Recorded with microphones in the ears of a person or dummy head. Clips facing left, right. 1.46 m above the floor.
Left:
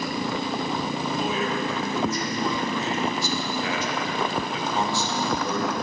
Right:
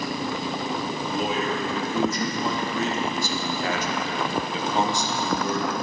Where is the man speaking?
70° right (ahead or behind), 2.5 m; by 5.7 s 5° left (ahead or behind), 1.1 m.